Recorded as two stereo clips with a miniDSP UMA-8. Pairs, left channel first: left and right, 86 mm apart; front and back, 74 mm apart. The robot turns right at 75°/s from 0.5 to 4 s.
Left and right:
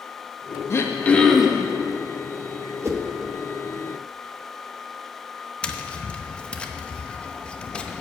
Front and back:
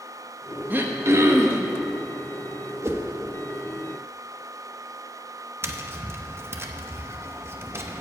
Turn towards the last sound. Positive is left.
turn(degrees=165)